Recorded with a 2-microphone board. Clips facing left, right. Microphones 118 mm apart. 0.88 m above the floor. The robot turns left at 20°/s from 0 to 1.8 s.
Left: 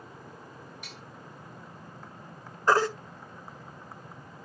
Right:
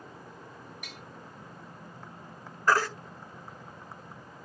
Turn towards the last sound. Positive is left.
turn(degrees=25)  # may be behind; listen again after turning